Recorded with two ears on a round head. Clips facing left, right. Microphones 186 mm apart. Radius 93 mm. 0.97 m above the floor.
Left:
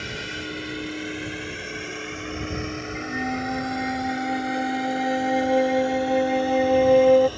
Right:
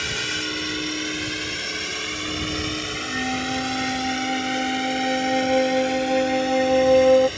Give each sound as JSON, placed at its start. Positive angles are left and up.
{"t": 0.0, "sound": "a drone", "side_deg": -65}
{"t": 3.0, "sound": "a flute", "side_deg": 0}